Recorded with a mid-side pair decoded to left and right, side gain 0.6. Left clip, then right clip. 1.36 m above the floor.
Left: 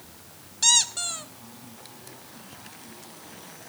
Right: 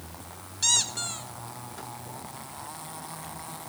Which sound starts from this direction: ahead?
A squeak, at 0.6 s.